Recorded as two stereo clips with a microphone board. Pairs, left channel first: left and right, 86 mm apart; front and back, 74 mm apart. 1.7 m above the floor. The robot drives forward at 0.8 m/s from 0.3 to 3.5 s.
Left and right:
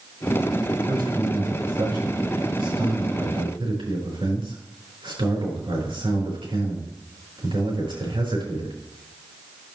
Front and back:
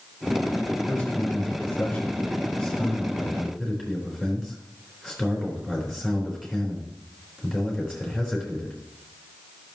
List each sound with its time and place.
0.9 s a man speaking: 65° right, 4.5 m; by 8.8 s 95° right, 4 m